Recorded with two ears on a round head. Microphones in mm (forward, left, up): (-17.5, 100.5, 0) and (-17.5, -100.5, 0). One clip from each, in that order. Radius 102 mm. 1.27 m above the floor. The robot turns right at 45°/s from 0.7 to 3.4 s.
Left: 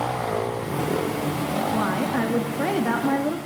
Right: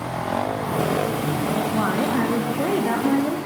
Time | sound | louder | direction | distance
1.7 | a woman speaking | right 2 dB | 5° right | 2 m